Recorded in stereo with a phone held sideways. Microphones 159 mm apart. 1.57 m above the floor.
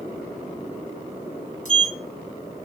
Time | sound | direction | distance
1.6 | a sliding door | 55° left (ahead or behind) | 2.5 m